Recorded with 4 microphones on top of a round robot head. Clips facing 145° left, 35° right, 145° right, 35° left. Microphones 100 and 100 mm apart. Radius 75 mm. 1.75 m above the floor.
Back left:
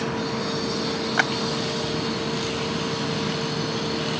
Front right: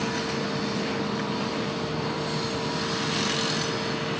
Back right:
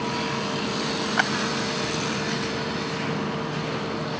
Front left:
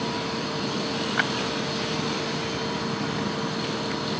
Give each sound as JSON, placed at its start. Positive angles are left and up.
{"t": 1.2, "sound": "a clap", "azimuth_deg": 160}